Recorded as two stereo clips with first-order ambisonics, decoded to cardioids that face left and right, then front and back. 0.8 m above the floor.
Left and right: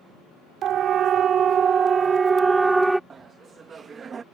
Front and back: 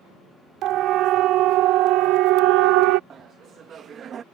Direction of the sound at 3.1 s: 145° right.